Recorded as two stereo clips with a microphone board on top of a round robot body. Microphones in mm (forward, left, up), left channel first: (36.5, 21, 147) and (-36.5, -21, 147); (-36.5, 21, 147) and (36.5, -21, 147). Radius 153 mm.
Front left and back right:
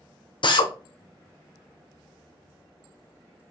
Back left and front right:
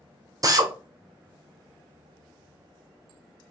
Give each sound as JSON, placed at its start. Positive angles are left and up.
{"t": 0.4, "sound": "a drill", "azimuth_deg": 15, "distance_m": 0.8}